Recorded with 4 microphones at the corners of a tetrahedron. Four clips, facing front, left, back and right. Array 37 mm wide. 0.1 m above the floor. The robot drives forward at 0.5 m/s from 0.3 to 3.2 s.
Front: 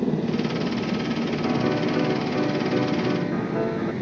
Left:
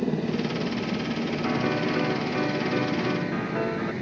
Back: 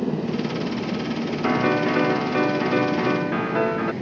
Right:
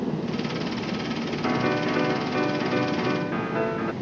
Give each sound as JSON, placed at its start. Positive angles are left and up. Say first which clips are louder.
{"t": 0.0, "sound": "a helicopter", "louder": "left 1 dB, front 1 dB", "azimuth_deg": 80}
{"t": 1.4, "sound": "a piano", "louder": "right 3 dB, back 5 dB", "azimuth_deg": -170}